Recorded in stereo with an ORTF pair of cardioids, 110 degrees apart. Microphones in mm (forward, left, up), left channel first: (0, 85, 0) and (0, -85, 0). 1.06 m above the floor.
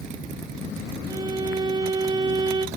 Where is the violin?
25° right, 0.8 m.